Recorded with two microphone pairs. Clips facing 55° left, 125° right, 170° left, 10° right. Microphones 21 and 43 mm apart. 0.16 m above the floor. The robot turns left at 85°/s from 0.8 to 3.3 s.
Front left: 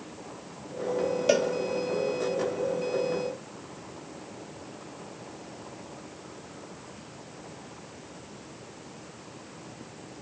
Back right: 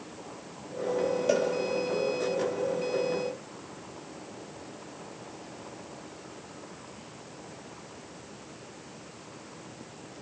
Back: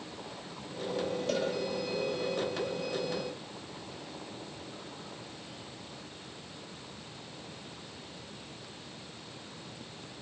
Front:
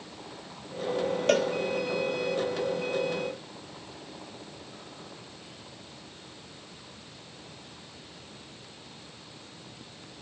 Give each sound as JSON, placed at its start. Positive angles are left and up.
{"t": 1.3, "sound": "a cowbell", "azimuth_deg": 15, "distance_m": 2.0}